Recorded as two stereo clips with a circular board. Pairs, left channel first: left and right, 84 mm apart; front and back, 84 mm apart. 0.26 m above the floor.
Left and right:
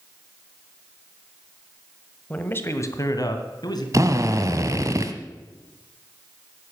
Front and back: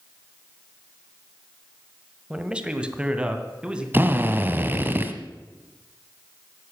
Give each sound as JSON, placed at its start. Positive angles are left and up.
{"t": 2.3, "sound": "a man speaking", "azimuth_deg": 125, "distance_m": 1.4}
{"t": 3.9, "sound": "a drill", "azimuth_deg": -120, "distance_m": 1.3}